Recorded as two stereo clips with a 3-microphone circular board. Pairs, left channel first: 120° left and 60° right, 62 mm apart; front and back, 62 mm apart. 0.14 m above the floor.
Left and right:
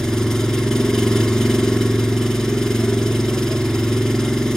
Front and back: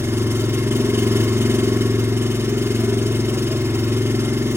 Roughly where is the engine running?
Behind.